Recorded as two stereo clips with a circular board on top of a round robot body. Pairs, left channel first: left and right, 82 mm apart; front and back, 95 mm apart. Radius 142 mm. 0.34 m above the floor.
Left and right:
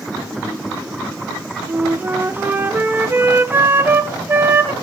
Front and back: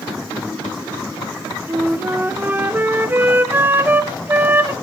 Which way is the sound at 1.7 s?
130° right.